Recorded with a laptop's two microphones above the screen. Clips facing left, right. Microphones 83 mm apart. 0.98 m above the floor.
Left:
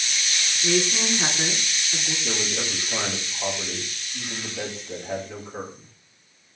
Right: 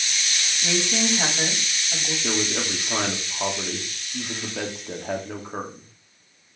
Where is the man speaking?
75° right (ahead or behind), 2.5 m.